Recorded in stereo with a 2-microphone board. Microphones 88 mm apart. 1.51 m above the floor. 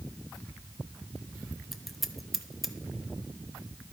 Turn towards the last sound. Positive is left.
turn(degrees=0)  # may be behind; listen again after turning